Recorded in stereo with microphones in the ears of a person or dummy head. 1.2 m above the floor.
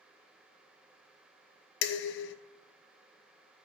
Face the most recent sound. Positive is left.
turn(degrees=65)  # may be behind; listen again after turning